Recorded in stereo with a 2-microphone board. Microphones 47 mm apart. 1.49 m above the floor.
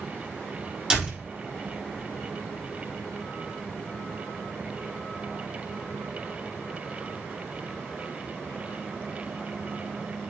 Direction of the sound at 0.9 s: 15° right (ahead or behind).